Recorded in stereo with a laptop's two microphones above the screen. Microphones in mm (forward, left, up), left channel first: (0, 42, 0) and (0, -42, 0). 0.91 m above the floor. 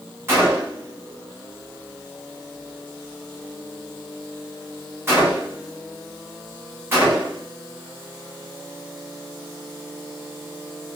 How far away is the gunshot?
About 1.6 m.